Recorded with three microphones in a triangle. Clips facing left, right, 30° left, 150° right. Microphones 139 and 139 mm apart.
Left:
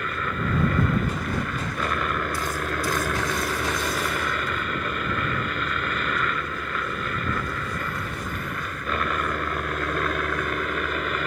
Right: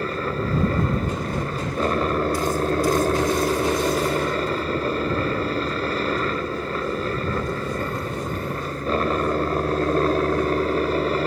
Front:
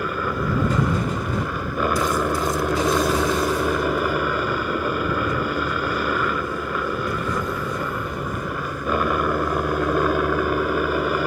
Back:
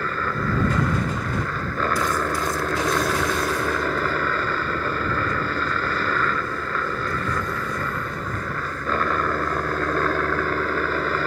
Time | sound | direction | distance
0.0 | a helicopter | 45° right | ?